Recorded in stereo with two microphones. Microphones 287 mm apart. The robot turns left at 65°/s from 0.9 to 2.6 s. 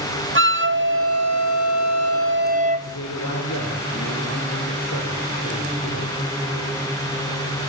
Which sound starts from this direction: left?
A man speaking, at 2.8 s.